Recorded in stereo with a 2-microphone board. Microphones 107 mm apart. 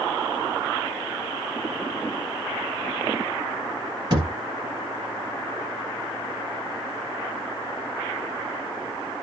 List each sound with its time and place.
4.1 s a thud: 40° right (ahead or behind), 2 m